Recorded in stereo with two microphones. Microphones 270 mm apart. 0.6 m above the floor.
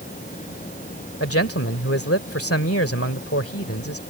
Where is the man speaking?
55° left (ahead or behind).